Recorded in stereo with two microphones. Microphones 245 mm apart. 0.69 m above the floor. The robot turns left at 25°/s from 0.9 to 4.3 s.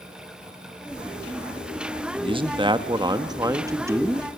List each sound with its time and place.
2.2 s a man speaking: 20° right (ahead or behind), 1.0 m; by 4.3 s 10° right (ahead or behind), 1.0 m